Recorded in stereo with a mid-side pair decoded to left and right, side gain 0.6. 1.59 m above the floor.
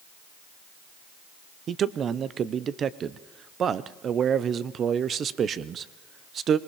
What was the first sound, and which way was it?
A man speaking, 40° right.